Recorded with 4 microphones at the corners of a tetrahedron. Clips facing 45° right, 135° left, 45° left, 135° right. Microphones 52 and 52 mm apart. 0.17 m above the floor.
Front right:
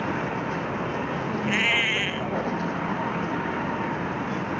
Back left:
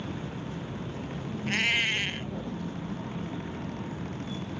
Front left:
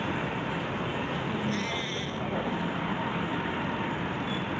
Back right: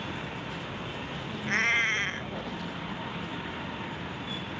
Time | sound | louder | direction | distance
0.0 | a vehicle | front right 10 dB, front left 6 dB | 20° right | ?
1.5 | a cat meowing | front right 3 dB, back right 5 dB | 110° right | ?